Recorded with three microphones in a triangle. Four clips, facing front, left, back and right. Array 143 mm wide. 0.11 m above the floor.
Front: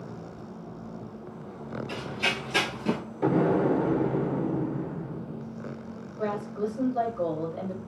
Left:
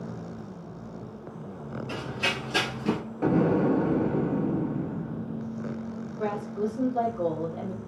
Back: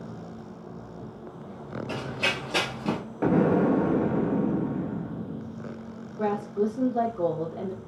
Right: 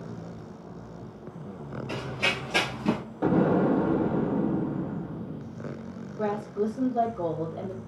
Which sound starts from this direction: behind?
An explosion, at 3.2 s.